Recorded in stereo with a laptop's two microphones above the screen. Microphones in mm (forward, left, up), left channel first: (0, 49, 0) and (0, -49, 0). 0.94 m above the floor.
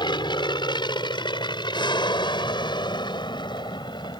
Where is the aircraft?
50° left (ahead or behind).